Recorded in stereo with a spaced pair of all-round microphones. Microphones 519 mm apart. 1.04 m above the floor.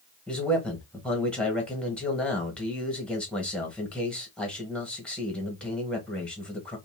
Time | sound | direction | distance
0.3 | a man speaking | centre (ahead or behind) | 1.3 m